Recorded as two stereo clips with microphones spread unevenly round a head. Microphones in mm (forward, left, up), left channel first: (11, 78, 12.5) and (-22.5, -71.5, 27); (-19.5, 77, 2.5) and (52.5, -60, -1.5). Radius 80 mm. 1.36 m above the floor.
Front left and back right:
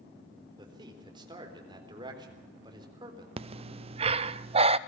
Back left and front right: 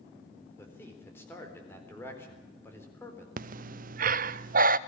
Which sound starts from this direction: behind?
A man speaking, at 0.6 s.